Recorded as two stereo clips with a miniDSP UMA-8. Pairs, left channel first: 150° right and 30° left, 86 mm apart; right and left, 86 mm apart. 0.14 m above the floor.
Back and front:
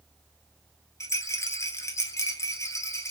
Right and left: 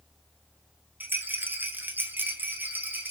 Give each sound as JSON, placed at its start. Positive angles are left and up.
{"t": 1.0, "sound": "a rattle", "azimuth_deg": 155, "distance_m": 1.0}